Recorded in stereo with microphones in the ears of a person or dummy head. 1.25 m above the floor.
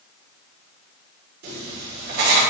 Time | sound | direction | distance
1.4 | writing | 45° right (ahead or behind) | 2 m